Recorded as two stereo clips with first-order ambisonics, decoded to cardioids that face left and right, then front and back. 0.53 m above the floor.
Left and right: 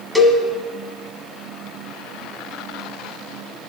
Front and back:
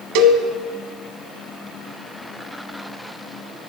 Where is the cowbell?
175° right, 1.6 m.